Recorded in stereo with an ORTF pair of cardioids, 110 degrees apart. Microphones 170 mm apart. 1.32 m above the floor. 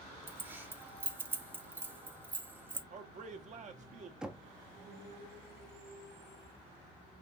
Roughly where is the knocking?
Ahead.